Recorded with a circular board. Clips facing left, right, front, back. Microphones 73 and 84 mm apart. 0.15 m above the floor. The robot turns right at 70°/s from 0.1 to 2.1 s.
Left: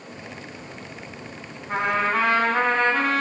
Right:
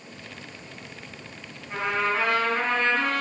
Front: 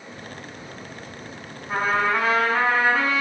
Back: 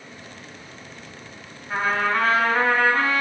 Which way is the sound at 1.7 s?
50° left.